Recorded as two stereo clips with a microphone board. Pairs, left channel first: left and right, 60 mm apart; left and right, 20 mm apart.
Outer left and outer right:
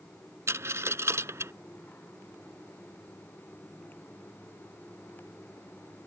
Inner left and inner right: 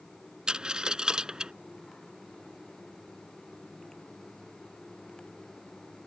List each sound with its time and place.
0.5 s a dropped coin: 45° right (ahead or behind)